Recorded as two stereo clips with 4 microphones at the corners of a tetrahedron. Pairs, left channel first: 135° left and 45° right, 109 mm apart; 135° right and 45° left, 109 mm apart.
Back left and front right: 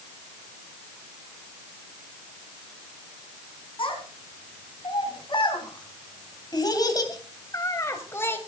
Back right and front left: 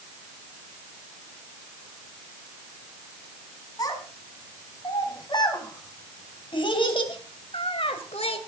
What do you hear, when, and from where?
3.8 s a child speaking: 170° left, 4.5 m; by 8.4 s 155° right, 2.5 m